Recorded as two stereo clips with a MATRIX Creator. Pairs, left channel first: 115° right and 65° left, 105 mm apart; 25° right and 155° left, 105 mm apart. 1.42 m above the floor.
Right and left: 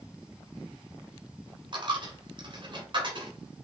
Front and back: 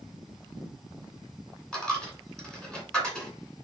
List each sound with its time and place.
1.7 s a dropped coin: 60° left, 2.0 m